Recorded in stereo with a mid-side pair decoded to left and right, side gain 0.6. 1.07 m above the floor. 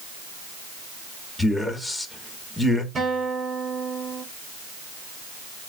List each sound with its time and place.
1.4 s a man speaking: 5° left, 1.6 m
3.0 s a guitar: 25° right, 2.5 m